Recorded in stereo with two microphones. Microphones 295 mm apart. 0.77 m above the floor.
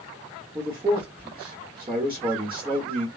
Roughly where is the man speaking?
Centre.